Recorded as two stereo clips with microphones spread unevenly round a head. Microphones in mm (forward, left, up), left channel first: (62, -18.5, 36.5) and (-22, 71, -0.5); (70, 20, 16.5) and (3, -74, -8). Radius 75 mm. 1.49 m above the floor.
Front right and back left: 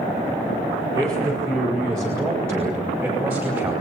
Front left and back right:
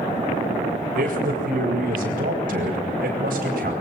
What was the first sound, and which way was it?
A man speaking, 155° right.